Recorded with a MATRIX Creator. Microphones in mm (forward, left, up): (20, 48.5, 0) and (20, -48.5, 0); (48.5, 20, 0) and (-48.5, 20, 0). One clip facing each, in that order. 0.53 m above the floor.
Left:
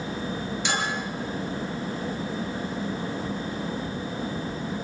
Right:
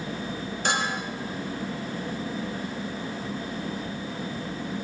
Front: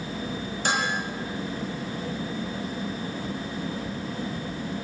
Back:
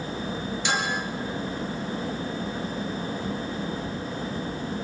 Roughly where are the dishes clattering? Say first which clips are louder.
Right 2 dB, front 2 dB; ahead right.